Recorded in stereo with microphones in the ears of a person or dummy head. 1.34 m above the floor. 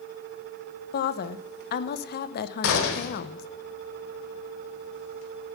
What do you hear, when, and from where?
0.9 s a woman speaking: 55° left (ahead or behind), 0.8 m
2.6 s a gunshot: 65° left (ahead or behind), 2.0 m